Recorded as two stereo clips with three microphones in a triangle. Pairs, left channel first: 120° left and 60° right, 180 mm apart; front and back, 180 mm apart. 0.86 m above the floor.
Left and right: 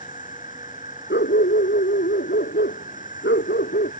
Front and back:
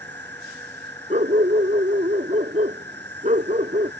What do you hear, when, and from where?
0.0 s an insect: 165° left
1.1 s a dog barking: 130° left